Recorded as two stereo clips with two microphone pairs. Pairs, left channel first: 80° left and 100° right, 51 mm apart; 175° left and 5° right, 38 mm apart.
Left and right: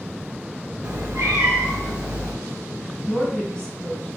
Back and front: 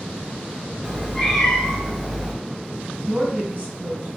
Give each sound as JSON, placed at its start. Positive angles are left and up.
{"t": 0.8, "sound": "a cat meowing", "azimuth_deg": -105, "distance_m": 1.2}
{"t": 3.1, "sound": "a woman speaking", "azimuth_deg": 10, "distance_m": 1.8}